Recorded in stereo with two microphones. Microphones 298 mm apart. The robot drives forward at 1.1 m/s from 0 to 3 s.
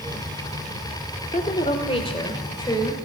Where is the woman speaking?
25° left (ahead or behind), 1.3 m; by 3.0 s 10° left (ahead or behind), 2.5 m.